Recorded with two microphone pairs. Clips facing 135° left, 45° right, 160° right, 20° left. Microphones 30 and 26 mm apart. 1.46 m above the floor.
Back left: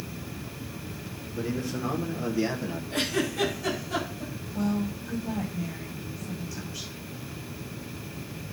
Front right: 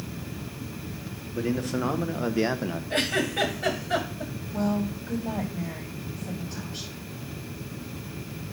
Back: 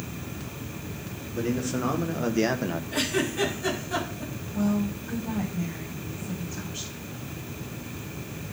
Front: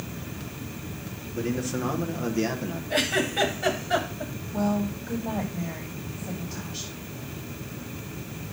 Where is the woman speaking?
5° right, 8.5 m.